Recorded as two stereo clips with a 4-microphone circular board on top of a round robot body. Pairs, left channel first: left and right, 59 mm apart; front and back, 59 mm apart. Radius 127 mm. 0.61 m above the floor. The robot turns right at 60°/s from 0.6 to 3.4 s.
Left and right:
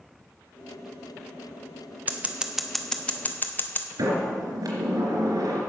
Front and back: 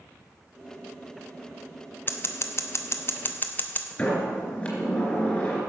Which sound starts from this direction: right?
A sliding door, at 4.0 s.